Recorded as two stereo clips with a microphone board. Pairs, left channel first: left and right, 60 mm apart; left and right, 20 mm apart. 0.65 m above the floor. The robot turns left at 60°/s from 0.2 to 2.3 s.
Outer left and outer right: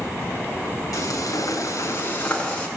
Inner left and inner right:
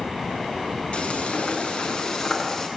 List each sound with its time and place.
0.9 s frying: 105° left, 7 m; by 2.7 s 20° left, 7 m